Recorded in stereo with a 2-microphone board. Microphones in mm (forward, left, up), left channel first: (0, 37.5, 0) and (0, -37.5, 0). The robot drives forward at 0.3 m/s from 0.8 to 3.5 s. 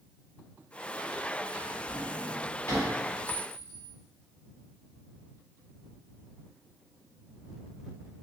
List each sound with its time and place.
1.5 s a drawer: 30° left (ahead or behind), 1.6 m; by 2.9 s 25° left (ahead or behind), 2.0 m
3.3 s a clink: 20° left (ahead or behind), 1.4 m; by 3.9 s 15° left (ahead or behind), 1.5 m